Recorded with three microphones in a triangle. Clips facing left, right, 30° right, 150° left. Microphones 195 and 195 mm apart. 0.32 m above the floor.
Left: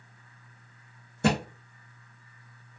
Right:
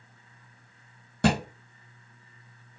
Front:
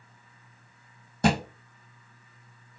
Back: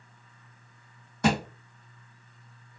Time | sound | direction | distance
1.2 | a thud | 90° right | 1.6 m